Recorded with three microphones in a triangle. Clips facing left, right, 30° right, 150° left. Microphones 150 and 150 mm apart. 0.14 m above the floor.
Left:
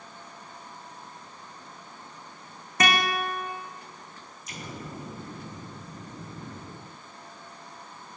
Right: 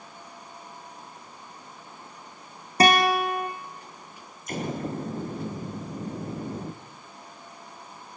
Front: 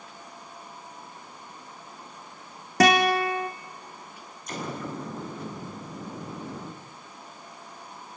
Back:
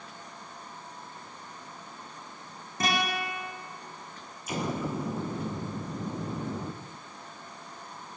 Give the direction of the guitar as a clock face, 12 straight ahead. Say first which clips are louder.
Right 6 dB, front 10 dB; 1 o'clock.